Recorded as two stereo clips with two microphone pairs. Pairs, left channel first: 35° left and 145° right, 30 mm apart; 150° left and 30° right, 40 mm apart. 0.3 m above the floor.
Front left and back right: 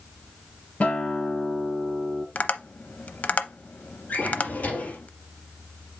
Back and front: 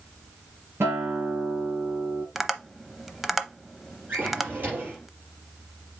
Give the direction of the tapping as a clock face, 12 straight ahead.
10 o'clock.